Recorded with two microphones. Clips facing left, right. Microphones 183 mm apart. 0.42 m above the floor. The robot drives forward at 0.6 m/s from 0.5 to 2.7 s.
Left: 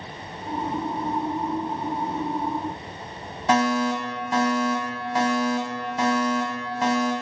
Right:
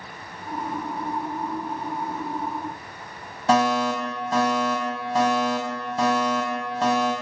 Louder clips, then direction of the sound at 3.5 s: Right 1 dB; 35° right (ahead or behind).